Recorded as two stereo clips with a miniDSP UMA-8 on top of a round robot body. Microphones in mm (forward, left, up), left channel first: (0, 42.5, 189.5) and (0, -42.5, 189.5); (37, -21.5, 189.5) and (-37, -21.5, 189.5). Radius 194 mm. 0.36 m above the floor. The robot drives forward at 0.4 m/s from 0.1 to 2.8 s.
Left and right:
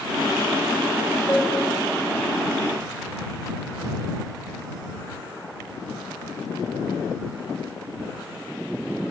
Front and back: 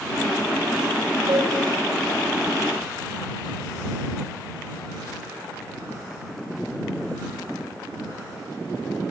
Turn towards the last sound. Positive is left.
turn(degrees=175)